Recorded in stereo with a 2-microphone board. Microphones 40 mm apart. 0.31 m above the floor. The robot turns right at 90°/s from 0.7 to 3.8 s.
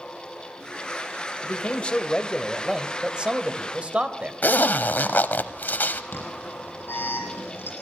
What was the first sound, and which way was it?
A man speaking, 75° left.